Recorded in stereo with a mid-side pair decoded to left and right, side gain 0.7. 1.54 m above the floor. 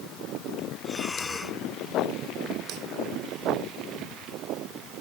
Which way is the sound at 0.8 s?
15° left.